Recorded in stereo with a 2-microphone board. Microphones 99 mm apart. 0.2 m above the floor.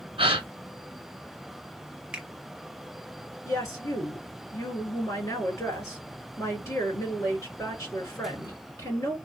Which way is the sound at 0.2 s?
60° right (ahead or behind).